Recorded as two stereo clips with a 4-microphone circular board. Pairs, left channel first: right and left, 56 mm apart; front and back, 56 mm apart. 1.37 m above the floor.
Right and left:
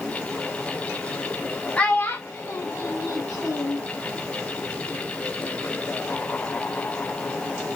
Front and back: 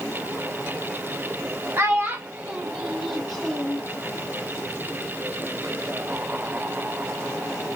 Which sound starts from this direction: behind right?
A child speaking, at 1.8 s.